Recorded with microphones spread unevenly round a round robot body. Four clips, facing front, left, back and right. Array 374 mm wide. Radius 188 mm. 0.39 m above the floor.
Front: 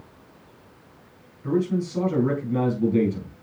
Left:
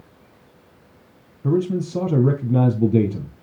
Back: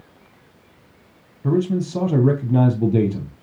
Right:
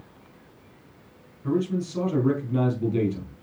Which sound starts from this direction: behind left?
A man speaking, at 1.4 s.